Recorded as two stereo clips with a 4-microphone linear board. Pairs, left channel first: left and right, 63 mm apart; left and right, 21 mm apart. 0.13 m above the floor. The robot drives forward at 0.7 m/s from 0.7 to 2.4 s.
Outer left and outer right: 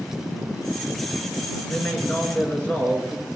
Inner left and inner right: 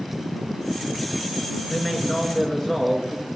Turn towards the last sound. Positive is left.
turn(degrees=25)  # may be behind; listen again after turning